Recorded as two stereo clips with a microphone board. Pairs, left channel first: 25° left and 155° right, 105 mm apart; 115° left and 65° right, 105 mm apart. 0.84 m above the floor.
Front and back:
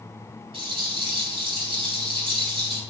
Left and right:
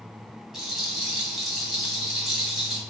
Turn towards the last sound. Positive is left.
turn(degrees=-155)